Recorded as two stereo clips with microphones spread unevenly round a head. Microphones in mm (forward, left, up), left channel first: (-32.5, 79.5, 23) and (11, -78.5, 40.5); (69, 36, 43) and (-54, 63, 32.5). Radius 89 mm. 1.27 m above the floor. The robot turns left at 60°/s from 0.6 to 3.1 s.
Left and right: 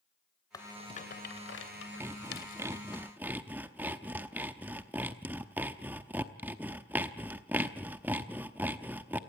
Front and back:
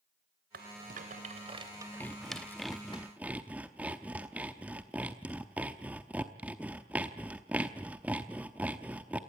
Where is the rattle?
175° left, 2.5 m; by 3.0 s 35° left, 2.5 m.